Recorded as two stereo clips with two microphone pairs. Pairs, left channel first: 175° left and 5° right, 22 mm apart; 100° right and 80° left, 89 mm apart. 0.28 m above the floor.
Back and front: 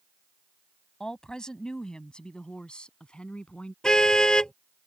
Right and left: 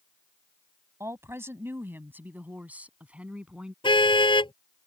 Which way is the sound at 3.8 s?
125° right.